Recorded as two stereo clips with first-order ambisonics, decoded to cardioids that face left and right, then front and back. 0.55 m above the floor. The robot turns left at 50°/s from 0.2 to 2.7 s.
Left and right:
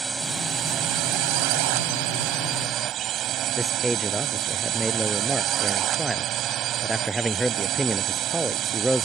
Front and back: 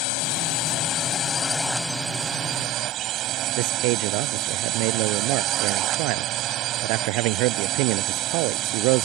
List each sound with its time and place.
0.0 s a drone: 15° right; by 9.1 s 140° right
3.6 s a man speaking: 175° right